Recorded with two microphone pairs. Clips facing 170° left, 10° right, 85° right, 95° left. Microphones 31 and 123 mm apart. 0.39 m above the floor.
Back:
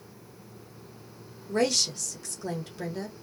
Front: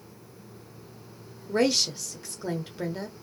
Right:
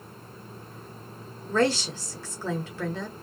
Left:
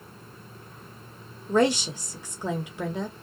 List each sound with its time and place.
1.5 s a woman speaking: 45° left, 1.0 m